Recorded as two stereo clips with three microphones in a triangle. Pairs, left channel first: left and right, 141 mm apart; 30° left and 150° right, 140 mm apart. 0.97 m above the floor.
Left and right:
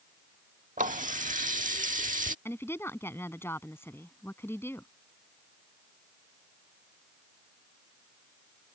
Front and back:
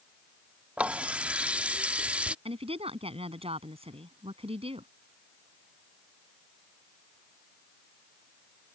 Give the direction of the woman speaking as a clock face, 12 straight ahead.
7 o'clock.